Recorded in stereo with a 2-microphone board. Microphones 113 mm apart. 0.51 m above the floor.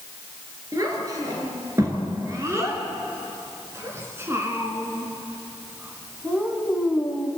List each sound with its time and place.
0.7 s a child speaking: 30° right (ahead or behind), 6.5 m; by 7.3 s 5° right (ahead or behind), 3.5 m